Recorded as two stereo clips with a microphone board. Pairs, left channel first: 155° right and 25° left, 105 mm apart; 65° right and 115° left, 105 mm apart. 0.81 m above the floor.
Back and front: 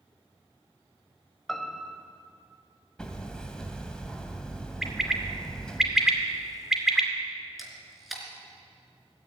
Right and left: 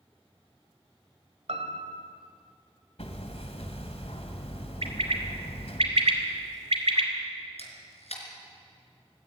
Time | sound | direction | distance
1.5 | a piano | 115° left | 1.9 m
3.0 | hammering | 75° right | 1.9 m
4.8 | a bird | 110° left | 2 m
7.6 | a camera shutter | 65° right | 3.5 m